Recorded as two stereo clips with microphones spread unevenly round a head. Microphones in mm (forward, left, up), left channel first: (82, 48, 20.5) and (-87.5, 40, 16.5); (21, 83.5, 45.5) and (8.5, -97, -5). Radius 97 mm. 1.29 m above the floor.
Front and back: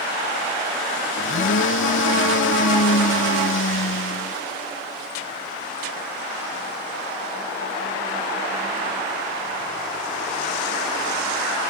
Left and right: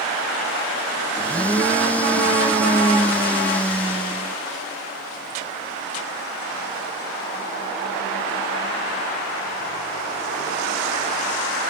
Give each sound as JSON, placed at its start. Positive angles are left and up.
{"t": 1.2, "sound": "a blender", "azimuth_deg": 5}